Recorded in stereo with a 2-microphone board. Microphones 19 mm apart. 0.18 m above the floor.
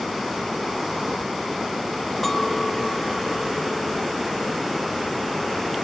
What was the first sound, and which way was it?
A clink, 10° left (ahead or behind).